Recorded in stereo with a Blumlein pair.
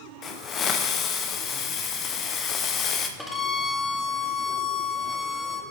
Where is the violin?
Straight ahead, 1.6 m.